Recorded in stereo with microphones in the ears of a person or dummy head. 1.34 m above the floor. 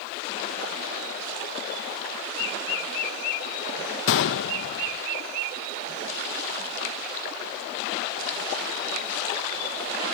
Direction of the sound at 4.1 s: 70° left (ahead or behind).